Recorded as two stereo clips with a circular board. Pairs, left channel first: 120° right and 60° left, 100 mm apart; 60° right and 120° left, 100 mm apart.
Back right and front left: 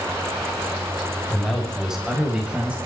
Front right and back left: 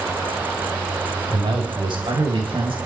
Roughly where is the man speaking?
Behind left.